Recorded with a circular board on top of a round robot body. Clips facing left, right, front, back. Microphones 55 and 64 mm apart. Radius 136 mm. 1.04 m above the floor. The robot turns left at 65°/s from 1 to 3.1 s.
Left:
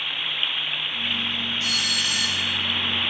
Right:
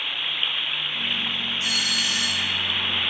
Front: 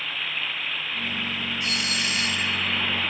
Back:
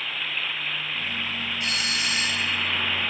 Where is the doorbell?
160° right, 5.5 m; by 2.6 s 135° left, 5.5 m.